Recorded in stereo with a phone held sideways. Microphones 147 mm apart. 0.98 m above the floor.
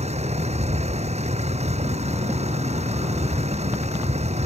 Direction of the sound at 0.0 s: 45° right (ahead or behind).